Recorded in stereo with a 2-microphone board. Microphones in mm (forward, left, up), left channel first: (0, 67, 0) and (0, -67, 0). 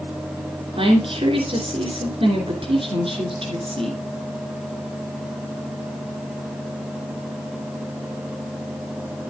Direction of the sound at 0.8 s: 40° right (ahead or behind).